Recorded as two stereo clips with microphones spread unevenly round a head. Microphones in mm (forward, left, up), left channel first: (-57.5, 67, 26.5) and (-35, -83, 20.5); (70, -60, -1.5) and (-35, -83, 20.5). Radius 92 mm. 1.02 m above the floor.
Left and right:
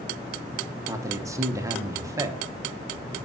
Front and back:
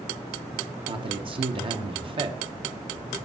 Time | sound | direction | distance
0.9 | a man speaking | 140° right | 1.0 m